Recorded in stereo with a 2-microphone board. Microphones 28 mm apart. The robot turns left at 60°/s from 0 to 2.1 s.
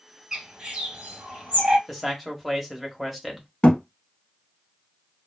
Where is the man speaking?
10° left (ahead or behind), 0.9 m; by 3.5 s centre (ahead or behind), 0.9 m.